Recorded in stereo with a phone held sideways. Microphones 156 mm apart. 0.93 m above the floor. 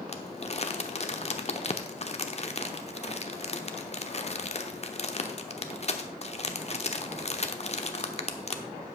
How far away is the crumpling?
About 0.9 m.